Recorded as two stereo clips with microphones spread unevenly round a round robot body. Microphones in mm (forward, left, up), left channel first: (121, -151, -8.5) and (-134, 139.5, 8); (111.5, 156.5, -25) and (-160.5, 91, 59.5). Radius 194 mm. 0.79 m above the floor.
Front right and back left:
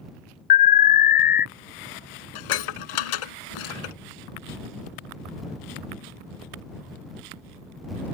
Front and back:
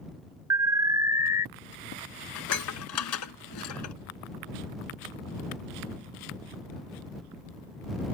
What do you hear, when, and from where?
0.5 s an alarm: 85° right
2.4 s dishes clattering: 35° right